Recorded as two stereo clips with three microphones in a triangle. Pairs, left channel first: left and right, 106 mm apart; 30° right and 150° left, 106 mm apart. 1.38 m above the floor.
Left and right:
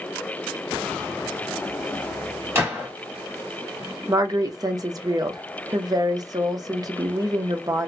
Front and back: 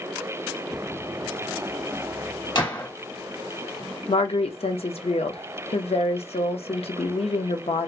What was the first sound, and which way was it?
A gunshot, 35° right.